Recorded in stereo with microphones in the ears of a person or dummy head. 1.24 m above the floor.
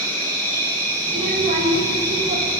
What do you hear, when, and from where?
0.0 s an insect: 10° left (ahead or behind), 2.5 m
1.1 s a child speaking: 35° right (ahead or behind), 1.3 m